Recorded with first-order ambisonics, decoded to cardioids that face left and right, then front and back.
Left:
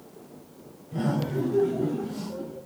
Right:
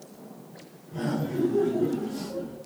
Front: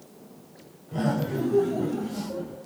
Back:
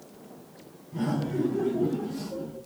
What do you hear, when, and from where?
0.9 s laughter: 10° left, 4 m; by 2.6 s 10° right, 5 m